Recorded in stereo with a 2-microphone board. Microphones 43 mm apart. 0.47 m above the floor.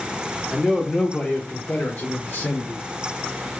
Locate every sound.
0.5 s a man speaking: centre (ahead or behind), 1.1 m; by 2.9 s 50° left (ahead or behind), 1.3 m